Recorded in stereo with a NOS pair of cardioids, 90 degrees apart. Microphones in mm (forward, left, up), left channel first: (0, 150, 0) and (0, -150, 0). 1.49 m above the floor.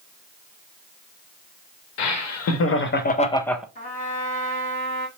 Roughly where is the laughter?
Ahead left.